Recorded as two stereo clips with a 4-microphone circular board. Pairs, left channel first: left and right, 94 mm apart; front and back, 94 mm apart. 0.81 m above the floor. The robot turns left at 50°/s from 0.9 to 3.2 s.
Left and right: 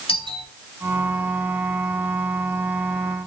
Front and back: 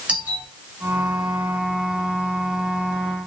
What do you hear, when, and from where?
0.1 s a doorbell: 105° left, 6 m